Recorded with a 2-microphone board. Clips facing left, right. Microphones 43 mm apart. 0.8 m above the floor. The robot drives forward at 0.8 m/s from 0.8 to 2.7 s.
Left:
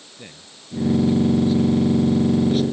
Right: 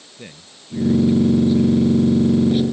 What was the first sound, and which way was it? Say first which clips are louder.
A man speaking: right 3 dB; 10° right (ahead or behind).